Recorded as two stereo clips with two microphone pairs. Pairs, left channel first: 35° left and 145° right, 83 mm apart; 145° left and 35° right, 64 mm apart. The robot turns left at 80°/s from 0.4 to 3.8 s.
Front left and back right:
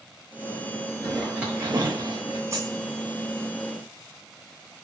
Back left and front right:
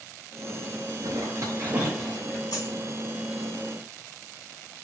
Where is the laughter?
No laughter in this recording.